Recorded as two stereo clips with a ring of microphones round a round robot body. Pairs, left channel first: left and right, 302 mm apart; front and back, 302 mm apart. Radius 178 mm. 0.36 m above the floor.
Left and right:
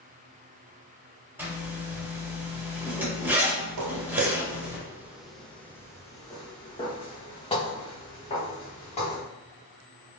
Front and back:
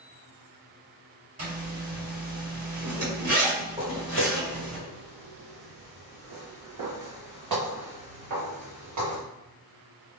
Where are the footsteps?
110° right, 0.5 m; by 9.2 s 160° left, 3 m.